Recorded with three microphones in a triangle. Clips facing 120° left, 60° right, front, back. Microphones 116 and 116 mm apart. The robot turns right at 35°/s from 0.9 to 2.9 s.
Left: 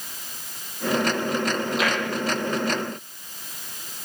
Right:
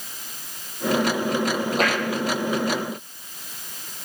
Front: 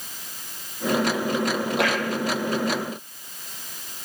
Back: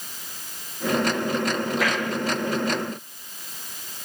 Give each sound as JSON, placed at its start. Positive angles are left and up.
{"t": 1.8, "sound": "tapping", "azimuth_deg": -15, "distance_m": 7.0}